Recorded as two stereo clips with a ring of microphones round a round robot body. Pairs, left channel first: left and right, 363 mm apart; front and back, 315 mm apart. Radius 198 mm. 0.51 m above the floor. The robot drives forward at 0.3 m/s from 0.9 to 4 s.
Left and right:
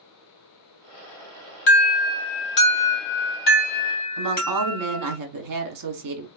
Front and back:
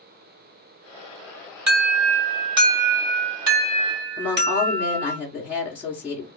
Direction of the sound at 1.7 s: 150° left.